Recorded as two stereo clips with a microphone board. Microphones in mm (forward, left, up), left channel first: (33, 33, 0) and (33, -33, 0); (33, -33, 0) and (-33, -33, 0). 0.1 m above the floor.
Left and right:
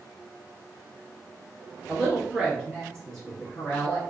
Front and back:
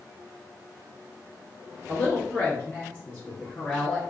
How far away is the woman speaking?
About 1.8 m.